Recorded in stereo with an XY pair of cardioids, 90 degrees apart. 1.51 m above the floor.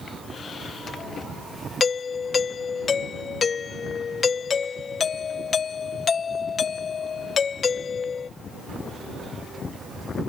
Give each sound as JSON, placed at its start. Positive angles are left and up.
{"t": 1.8, "sound": "a doorbell", "azimuth_deg": 50}